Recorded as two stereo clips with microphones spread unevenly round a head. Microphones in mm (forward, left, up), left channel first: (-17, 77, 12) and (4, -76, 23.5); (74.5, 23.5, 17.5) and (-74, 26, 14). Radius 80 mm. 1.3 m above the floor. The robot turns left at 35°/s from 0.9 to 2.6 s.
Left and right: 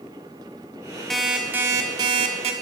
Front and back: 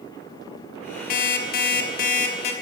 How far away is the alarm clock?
About 1.2 m.